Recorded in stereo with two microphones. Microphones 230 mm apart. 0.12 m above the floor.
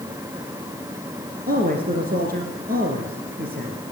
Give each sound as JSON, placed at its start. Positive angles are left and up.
{"t": 1.5, "sound": "a man speaking", "side_deg": -40, "distance_m": 1.9}